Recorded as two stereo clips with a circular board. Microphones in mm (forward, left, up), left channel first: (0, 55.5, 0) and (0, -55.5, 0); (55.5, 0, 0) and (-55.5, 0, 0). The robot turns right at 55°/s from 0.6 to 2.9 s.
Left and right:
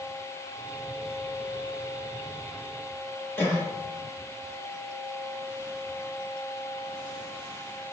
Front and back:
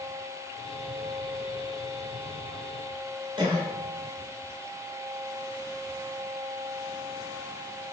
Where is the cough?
155° left, 1.3 m.